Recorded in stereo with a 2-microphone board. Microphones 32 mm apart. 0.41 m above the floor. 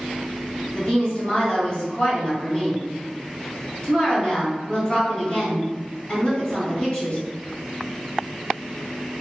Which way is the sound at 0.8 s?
35° left (ahead or behind).